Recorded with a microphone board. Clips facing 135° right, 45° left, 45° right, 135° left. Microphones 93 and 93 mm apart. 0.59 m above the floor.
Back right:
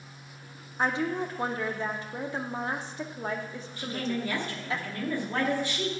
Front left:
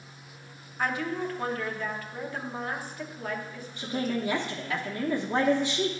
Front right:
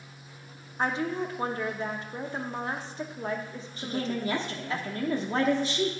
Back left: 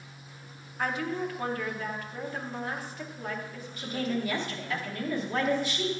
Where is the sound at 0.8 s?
90° right, 0.7 m.